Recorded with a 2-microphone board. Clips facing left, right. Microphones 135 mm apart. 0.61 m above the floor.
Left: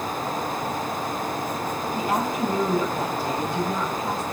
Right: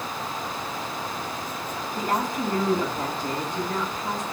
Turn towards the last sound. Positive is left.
turn(degrees=15)  # may be behind; listen again after turning